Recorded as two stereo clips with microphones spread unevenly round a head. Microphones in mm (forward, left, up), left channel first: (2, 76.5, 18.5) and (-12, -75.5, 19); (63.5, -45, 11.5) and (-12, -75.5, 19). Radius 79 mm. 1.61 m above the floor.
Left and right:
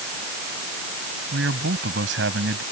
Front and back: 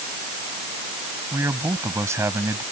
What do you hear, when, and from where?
1.3 s a man speaking: 105° right